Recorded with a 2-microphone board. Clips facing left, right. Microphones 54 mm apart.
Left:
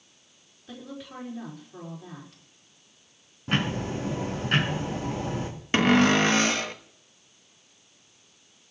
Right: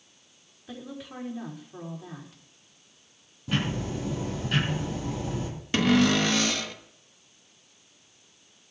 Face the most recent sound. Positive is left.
turn(degrees=35)  # may be behind; listen again after turning